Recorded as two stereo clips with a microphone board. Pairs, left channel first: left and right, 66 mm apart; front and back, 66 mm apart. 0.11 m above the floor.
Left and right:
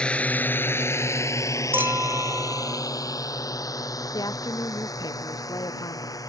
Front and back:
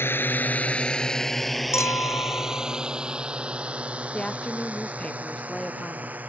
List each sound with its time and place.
0.0 s a drone: 25° left; by 6.3 s 115° left
1.7 s a clink: 35° right
4.1 s a woman speaking: 75° left